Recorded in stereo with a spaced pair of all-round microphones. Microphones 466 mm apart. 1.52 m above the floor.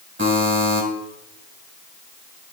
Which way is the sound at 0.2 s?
25° right (ahead or behind).